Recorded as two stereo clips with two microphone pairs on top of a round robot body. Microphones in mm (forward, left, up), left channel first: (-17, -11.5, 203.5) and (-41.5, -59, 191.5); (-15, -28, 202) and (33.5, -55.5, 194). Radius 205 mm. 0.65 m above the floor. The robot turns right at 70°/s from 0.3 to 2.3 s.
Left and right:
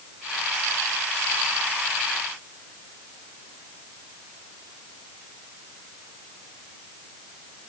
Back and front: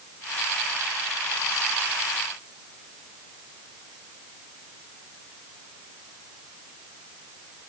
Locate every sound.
Only background noise.